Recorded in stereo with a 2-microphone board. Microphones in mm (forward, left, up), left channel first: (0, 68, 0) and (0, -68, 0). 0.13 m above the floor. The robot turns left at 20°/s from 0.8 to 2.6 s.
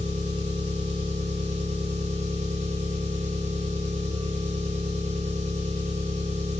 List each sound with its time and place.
0.0 s an engine running: 65° right, 0.7 m; by 6.6 s 100° right, 0.7 m